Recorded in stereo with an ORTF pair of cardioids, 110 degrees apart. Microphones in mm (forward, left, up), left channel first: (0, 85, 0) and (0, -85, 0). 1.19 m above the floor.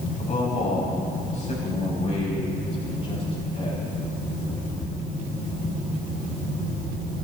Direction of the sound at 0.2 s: 50° left.